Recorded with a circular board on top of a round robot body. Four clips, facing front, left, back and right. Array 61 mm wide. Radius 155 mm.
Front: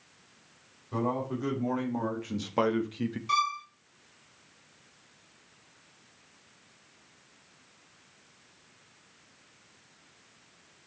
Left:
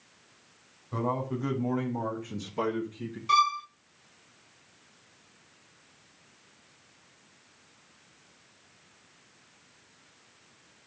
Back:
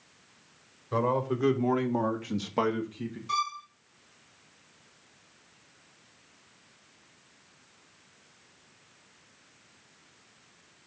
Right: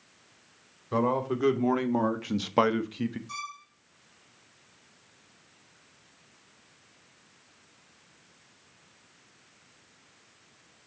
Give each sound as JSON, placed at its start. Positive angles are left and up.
{"t": 0.9, "sound": "a man speaking", "azimuth_deg": -120, "distance_m": 3.0}
{"t": 3.3, "sound": "a violin", "azimuth_deg": 75, "distance_m": 1.2}